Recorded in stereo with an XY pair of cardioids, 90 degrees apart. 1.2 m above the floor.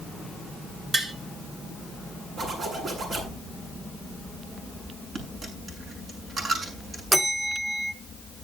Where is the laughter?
I don't hear laughter.